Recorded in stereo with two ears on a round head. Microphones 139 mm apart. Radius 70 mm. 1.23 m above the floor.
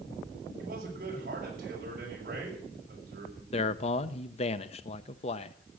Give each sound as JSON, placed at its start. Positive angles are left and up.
{"t": 0.6, "sound": "a man speaking", "side_deg": -60, "distance_m": 6.0}
{"t": 3.5, "sound": "a man speaking", "side_deg": 40, "distance_m": 0.7}